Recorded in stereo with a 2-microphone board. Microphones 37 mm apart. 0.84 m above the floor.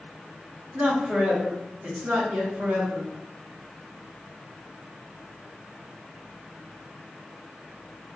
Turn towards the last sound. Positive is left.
turn(degrees=-55)  # may be behind; listen again after turning